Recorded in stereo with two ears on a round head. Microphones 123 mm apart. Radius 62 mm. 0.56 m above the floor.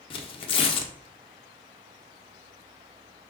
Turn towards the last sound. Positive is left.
turn(degrees=40)  # may be behind; listen again after turning